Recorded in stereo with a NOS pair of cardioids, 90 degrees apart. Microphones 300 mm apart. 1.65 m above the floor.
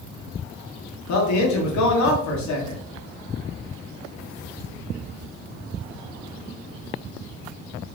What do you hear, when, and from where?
1.1 s a man speaking: 65° left, 1.9 m